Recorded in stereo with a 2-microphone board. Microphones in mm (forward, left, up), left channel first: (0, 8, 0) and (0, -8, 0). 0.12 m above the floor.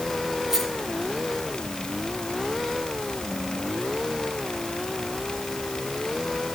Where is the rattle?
30° right (ahead or behind), 8.5 m.